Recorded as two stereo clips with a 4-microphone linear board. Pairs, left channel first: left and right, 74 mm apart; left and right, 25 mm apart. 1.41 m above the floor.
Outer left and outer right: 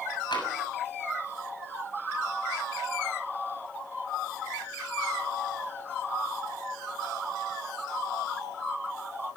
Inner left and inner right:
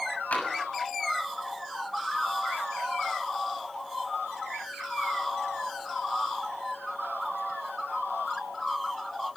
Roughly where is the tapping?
Left.